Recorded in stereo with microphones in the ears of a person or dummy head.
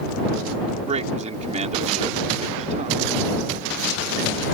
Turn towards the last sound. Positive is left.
turn(degrees=-35)  # may be behind; listen again after turning